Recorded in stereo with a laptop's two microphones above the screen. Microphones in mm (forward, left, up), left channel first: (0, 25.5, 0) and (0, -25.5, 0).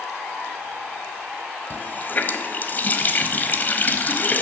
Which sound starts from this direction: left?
A running tap, at 1.7 s.